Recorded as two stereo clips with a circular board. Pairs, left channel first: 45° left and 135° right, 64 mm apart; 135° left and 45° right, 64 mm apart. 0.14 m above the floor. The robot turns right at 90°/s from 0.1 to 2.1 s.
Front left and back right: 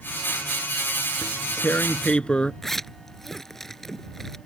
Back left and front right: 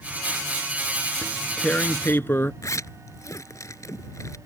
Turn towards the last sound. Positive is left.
turn(degrees=130)